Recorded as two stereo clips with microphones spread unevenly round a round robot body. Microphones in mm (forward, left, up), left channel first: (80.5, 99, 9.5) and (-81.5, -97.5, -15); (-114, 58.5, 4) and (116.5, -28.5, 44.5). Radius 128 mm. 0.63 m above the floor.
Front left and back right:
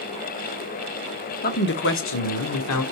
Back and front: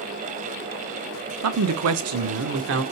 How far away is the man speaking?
About 1.1 m.